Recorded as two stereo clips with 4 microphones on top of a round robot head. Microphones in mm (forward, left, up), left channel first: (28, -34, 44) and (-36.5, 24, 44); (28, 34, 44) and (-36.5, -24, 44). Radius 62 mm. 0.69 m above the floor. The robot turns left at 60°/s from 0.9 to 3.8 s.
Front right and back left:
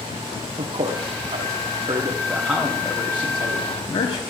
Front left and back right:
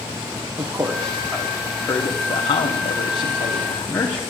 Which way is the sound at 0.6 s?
160° left.